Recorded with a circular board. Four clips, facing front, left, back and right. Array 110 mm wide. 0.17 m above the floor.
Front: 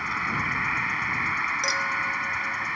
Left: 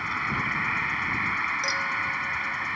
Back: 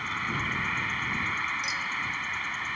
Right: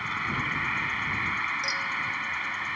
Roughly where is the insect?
Ahead left.